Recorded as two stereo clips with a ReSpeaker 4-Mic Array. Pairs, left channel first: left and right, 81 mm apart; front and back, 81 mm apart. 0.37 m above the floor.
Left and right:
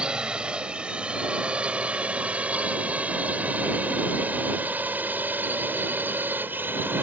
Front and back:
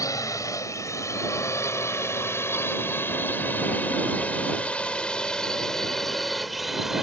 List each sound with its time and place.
0.0 s a drone: 15° right; by 7.0 s 100° right